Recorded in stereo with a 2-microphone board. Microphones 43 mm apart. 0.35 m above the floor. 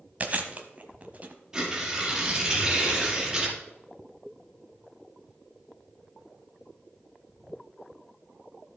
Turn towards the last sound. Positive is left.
turn(degrees=-15)  # may be behind; listen again after turning